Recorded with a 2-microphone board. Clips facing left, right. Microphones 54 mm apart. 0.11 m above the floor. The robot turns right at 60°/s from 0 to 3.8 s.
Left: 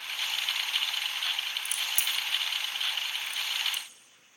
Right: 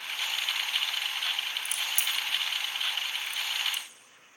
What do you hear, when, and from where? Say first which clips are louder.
1.6 s a crack: right 1 dB; 45° left (ahead or behind), 0.6 m; by 3.8 s 45° right (ahead or behind), 0.6 m